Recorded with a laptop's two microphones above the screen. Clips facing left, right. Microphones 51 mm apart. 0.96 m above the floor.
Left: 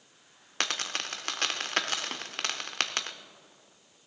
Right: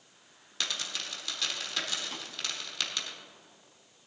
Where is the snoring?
I don't hear snoring.